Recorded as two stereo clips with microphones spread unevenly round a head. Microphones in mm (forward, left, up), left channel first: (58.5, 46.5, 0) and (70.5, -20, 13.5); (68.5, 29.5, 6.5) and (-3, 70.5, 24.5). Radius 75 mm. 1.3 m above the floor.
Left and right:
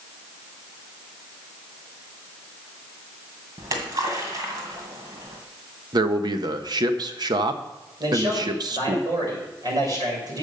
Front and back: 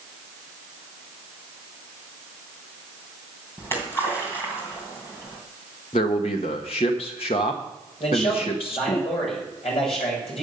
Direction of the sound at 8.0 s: 65° right.